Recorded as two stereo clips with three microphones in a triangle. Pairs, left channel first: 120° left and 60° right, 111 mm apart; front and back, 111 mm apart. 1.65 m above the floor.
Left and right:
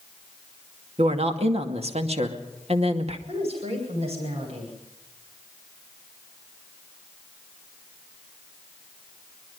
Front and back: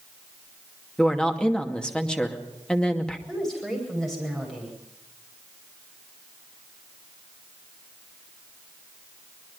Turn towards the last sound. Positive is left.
turn(degrees=-85)